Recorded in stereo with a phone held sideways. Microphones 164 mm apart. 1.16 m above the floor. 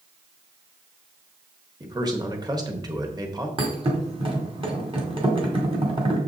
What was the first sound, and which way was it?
A man speaking, 25° right (ahead or behind).